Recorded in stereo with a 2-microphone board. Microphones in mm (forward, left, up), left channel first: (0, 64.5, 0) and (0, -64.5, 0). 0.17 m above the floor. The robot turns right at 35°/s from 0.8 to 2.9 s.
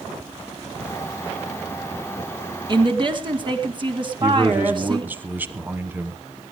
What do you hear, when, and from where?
2.7 s a woman speaking: 40° right (ahead or behind), 2 m
4.2 s a man speaking: 15° right (ahead or behind), 1.1 m